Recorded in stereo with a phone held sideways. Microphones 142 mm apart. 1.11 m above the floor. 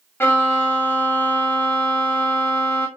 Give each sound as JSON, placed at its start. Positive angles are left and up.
{"t": 0.2, "sound": "a violin", "side_deg": 15, "distance_m": 1.0}